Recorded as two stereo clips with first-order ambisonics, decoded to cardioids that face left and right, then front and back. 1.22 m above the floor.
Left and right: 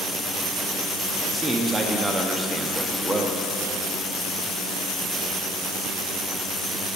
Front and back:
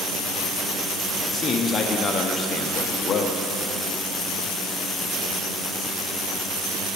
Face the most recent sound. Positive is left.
turn(degrees=-25)